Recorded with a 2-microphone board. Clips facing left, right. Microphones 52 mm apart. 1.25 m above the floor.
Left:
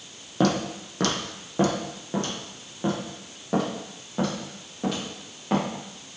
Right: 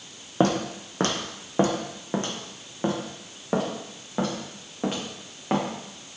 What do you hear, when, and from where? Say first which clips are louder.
0.4 s footsteps: right 1 dB; 30° right (ahead or behind), 1.9 m